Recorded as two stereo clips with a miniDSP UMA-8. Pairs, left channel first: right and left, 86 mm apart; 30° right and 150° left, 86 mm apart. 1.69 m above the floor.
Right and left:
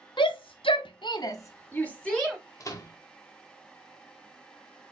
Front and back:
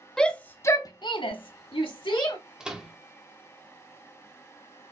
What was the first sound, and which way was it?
A shout, 115° right.